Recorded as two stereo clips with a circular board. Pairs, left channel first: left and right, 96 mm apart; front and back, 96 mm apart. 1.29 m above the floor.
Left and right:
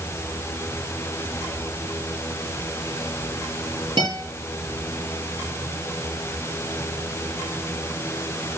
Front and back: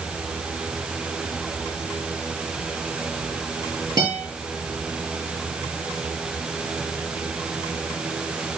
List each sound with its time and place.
4.0 s a guitar: 130° right, 7.5 m